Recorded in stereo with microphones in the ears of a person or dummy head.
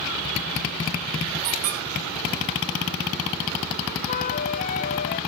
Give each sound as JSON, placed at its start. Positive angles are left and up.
{"t": 1.4, "sound": "a squeak", "side_deg": -40, "distance_m": 2.5}
{"t": 4.1, "sound": "a flute", "side_deg": 45, "distance_m": 0.6}